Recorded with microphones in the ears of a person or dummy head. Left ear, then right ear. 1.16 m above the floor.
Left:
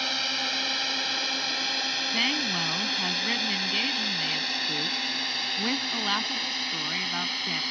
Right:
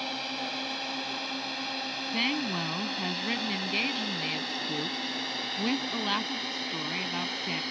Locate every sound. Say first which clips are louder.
0.0 s a drone: left 6 dB; 45° left (ahead or behind); by 7.7 s 30° left (ahead or behind)
2.1 s a woman speaking: left 2 dB; 15° left (ahead or behind)